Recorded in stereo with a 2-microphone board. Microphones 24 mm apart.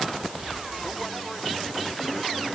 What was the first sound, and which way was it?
Only background noise.